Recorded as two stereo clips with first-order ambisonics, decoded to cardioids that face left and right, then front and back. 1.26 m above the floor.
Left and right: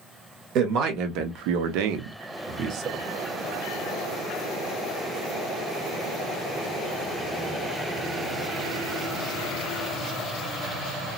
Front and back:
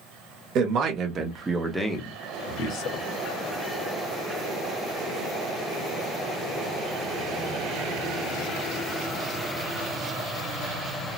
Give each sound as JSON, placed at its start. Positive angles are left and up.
{"t": 0.6, "sound": "a man speaking", "azimuth_deg": -130, "distance_m": 0.9}